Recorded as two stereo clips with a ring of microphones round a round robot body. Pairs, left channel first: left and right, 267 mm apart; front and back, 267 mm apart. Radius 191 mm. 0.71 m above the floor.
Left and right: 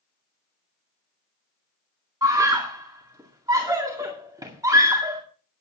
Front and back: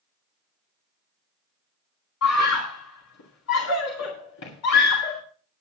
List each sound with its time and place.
2.2 s a scream: 15° right, 2 m